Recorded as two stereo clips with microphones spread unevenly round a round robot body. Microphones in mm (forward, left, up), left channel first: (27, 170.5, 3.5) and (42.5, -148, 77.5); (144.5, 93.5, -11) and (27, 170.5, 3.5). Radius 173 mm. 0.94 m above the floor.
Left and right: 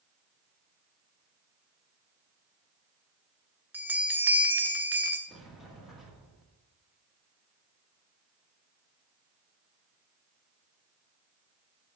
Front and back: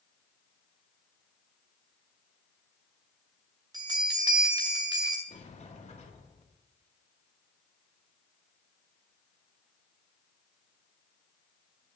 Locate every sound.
3.7 s a bell: 160° right, 0.5 m
5.3 s a sliding door: 5° left, 1.8 m